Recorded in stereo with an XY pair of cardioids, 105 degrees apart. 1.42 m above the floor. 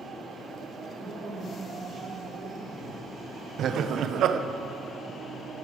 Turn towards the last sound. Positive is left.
turn(degrees=-65)